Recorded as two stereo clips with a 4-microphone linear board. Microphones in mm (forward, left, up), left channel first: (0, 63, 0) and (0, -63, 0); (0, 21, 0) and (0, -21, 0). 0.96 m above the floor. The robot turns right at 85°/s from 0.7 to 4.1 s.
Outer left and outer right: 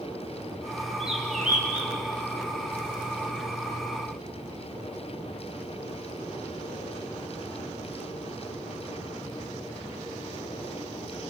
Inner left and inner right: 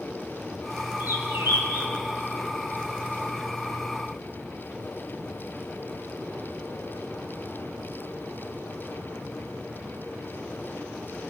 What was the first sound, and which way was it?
A bird, 135° right.